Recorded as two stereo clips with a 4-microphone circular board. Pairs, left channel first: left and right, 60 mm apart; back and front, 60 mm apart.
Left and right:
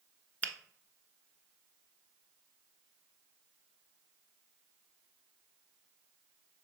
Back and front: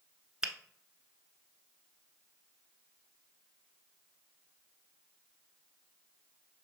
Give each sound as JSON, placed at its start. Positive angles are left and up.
{"t": 0.4, "sound": "a finger snap", "azimuth_deg": 65, "distance_m": 0.9}